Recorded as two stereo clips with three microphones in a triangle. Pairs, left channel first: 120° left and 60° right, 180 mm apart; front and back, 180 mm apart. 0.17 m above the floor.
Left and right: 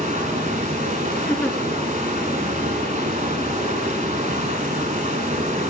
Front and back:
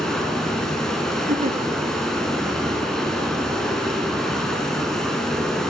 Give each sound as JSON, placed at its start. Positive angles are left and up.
{"t": 0.0, "sound": "running water", "azimuth_deg": -85, "distance_m": 0.9}
{"t": 1.3, "sound": "a giggle", "azimuth_deg": -160, "distance_m": 0.8}